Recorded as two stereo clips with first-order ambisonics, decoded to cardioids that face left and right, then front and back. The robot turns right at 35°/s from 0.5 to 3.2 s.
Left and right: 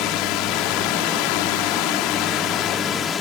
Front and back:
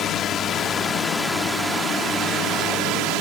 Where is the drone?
60° left; by 3.2 s 155° left.